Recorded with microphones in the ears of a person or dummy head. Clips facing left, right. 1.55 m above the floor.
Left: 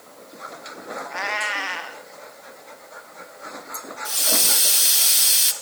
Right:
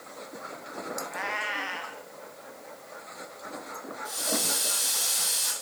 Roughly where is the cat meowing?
Left.